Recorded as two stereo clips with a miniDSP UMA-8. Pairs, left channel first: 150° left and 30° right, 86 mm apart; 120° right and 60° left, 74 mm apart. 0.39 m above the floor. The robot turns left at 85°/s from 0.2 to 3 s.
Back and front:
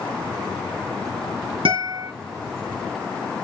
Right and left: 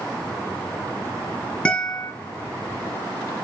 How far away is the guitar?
About 4.5 m.